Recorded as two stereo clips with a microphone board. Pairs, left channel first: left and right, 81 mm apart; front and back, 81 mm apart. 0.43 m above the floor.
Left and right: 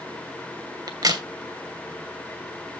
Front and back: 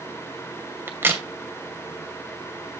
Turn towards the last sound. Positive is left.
turn(degrees=-120)